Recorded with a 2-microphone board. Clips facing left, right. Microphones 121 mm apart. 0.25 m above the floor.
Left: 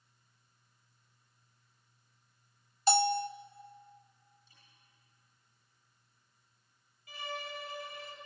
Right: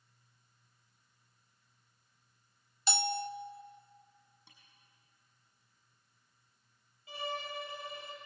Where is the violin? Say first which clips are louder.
Right 2 dB; 25° right (ahead or behind), 3.5 m.